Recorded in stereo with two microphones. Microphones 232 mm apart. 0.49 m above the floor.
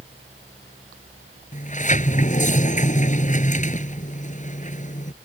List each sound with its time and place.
1.5 s a sliding door: 30° left (ahead or behind)